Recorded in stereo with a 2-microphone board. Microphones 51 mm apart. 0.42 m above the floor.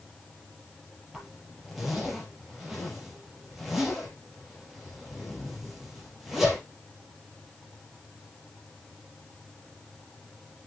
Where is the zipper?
5° right (ahead or behind), 4 m.